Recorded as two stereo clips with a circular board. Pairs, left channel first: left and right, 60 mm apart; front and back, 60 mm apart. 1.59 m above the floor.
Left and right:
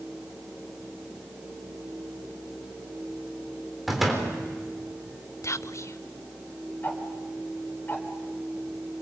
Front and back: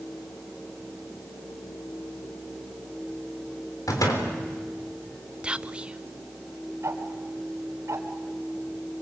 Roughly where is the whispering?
Left.